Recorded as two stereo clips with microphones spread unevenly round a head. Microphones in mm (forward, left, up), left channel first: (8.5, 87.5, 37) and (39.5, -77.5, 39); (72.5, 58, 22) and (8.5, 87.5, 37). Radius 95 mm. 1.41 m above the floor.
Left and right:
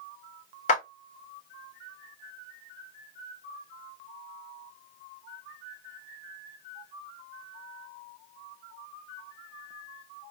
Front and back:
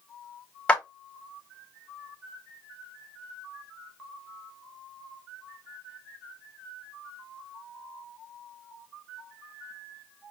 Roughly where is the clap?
Ahead left.